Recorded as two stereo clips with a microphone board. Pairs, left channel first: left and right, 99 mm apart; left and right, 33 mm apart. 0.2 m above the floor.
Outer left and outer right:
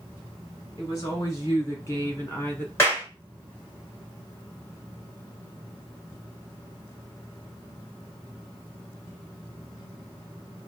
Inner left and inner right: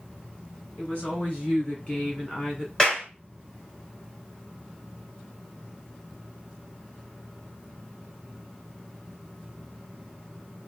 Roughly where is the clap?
Left.